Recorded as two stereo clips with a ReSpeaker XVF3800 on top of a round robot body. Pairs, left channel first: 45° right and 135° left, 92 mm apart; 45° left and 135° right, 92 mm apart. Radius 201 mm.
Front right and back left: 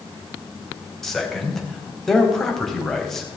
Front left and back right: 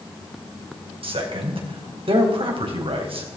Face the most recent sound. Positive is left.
turn(degrees=-130)